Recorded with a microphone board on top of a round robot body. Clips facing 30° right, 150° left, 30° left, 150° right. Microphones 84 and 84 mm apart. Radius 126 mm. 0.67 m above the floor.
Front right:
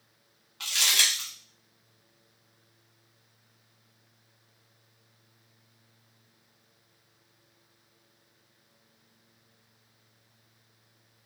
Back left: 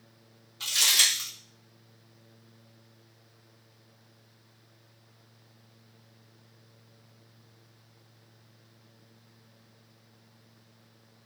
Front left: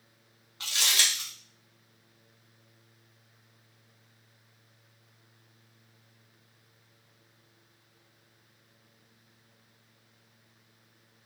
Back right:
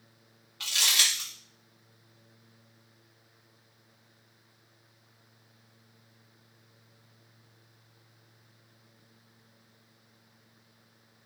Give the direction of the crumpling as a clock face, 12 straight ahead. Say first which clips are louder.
Even, even; 1 o'clock.